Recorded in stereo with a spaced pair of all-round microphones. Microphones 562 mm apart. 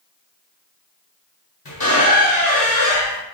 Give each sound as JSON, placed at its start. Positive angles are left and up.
{"t": 1.6, "sound": "a squeak", "side_deg": 40, "distance_m": 1.1}